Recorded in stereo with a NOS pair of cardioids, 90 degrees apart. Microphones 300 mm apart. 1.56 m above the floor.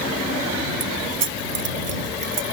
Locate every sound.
0.8 s keys jangling: 45° right; by 2.4 s 40° right